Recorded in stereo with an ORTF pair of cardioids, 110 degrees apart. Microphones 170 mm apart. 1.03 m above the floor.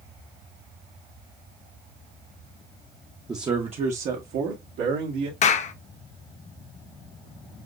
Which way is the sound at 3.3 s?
15° right.